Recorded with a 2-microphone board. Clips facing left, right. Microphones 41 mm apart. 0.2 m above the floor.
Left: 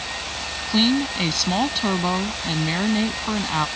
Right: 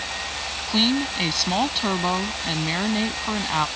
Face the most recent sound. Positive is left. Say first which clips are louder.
# left 2 dB
turn(degrees=-5)  # may be behind; listen again after turning